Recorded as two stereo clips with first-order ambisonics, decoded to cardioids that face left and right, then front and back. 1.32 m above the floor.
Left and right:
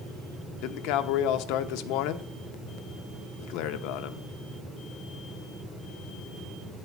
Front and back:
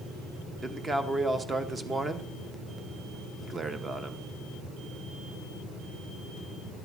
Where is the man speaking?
105° left, 1.0 m.